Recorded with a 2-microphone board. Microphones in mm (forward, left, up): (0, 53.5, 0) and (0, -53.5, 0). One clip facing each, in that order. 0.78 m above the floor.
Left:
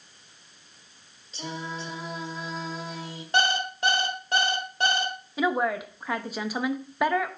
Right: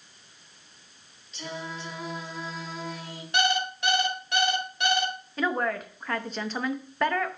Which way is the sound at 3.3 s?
40° left (ahead or behind).